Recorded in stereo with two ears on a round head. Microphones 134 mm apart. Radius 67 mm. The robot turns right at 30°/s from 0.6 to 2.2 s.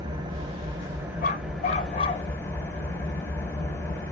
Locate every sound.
0.0 s an engine running: 30° right, 1.6 m; by 4.1 s 20° left, 1.6 m
1.2 s a dog barking: 60° left (ahead or behind), 0.9 m; by 2.3 s 30° left (ahead or behind), 0.9 m